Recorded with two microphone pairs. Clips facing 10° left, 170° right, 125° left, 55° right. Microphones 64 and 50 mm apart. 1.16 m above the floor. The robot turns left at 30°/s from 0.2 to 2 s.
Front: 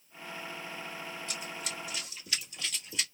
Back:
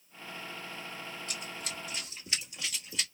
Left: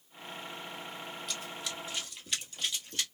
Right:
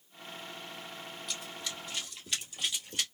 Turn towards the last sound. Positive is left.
turn(degrees=-60)